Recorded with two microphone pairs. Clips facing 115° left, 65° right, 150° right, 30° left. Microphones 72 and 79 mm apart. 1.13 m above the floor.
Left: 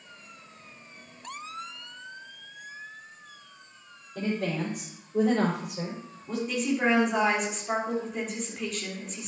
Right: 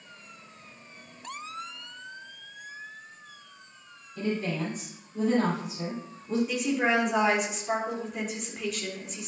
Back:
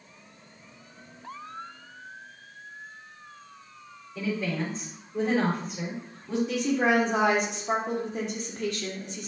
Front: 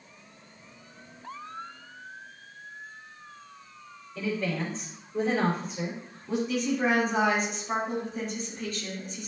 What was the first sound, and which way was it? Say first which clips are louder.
A woman speaking: even, even; 130° left.